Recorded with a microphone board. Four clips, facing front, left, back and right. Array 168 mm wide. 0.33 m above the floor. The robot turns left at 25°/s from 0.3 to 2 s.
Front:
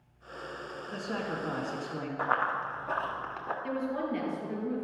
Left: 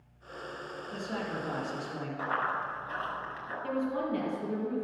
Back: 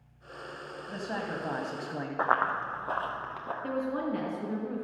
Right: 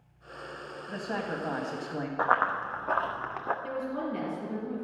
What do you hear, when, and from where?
0.9 s a man speaking: 120° right, 2.0 m; by 2.1 s 145° right, 2.0 m
2.2 s running footsteps: 135° right, 1.7 m; by 3.5 s 100° right, 2.0 m
3.6 s a woman speaking: 175° left, 4.5 m